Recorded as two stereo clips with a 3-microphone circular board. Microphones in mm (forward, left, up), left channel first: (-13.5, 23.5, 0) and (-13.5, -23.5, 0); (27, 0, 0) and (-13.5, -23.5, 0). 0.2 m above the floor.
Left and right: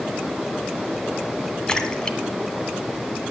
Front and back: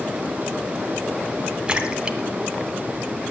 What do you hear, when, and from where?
1.7 s a splash: 155° left, 1.2 m